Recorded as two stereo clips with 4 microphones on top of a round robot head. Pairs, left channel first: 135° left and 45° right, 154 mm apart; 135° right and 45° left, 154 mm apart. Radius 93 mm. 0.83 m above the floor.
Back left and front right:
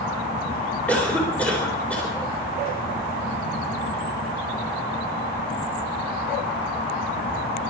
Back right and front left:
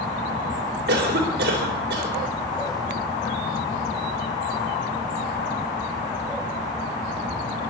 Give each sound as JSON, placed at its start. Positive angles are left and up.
{"t": 0.9, "sound": "a cough", "azimuth_deg": 50, "distance_m": 3.5}